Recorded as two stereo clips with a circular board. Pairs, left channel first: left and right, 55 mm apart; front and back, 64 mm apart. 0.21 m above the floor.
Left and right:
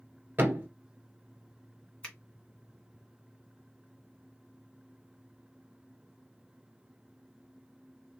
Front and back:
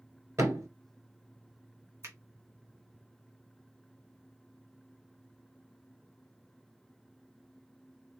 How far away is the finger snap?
About 1.7 m.